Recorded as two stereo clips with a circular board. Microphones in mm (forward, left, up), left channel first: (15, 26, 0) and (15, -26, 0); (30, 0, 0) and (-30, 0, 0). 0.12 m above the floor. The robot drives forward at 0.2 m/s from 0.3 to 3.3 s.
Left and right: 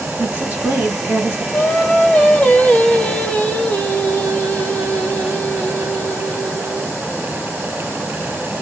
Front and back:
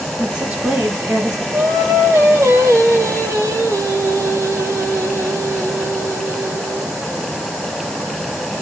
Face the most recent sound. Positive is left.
turn(degrees=155)